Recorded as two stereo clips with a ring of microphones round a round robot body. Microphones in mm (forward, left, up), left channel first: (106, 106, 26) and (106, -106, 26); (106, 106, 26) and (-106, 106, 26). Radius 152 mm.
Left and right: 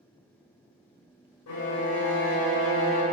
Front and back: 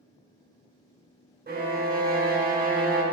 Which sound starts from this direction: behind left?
A violin, at 1.5 s.